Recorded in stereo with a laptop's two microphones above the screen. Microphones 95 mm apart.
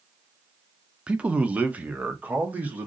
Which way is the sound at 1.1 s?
10° right (ahead or behind).